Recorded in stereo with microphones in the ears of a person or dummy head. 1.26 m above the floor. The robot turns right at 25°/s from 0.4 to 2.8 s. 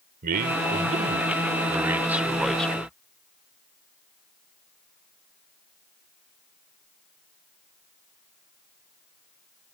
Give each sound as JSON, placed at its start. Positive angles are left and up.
{"t": 0.2, "sound": "a man speaking", "azimuth_deg": -50}